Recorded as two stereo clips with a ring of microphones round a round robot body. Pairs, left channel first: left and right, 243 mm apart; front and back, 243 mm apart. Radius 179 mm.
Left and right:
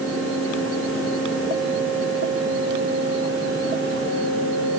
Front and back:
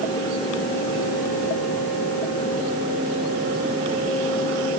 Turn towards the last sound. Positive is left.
No sound to turn to.